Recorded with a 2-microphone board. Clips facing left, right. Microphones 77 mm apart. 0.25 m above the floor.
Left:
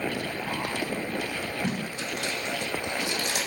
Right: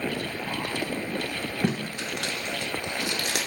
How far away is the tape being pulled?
About 0.6 m.